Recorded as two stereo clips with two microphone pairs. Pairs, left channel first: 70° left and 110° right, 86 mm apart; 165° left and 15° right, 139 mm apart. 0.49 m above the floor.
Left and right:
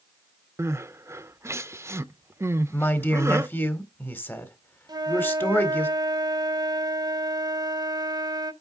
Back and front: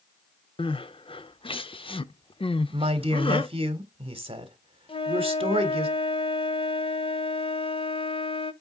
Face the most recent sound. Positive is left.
turn(degrees=-150)